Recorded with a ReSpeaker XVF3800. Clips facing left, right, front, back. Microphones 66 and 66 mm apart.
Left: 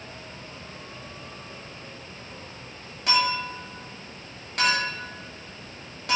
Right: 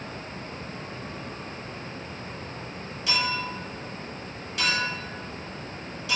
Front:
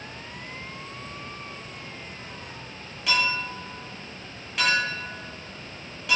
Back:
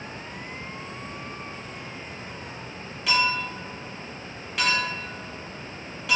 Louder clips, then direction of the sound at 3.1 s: Left 4 dB, back 1 dB; 90° left.